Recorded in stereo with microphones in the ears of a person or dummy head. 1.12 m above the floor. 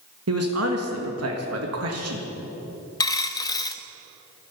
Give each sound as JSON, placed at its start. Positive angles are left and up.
{"t": 0.3, "sound": "a man speaking", "side_deg": -70, "distance_m": 1.8}
{"t": 3.0, "sound": "a dropped coin", "side_deg": 20, "distance_m": 0.7}